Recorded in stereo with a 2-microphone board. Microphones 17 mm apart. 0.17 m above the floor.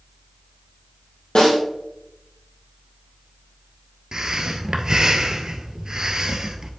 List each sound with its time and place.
1.4 s a snare drum: 60° left (ahead or behind), 3.5 m
4.1 s breathing: 45° right (ahead or behind), 0.8 m